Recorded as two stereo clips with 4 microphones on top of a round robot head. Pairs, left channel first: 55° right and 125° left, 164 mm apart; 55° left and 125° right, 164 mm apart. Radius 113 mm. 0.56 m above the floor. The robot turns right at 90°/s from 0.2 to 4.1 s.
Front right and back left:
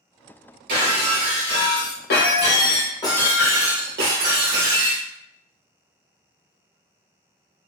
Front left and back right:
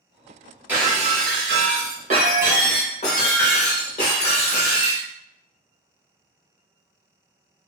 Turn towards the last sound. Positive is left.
turn(degrees=105)